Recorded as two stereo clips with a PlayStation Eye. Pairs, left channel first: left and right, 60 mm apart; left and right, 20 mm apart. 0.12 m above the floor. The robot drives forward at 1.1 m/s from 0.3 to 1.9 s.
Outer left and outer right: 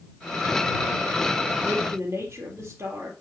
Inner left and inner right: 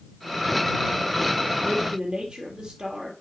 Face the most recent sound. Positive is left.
turn(degrees=-45)  # may be behind; listen again after turning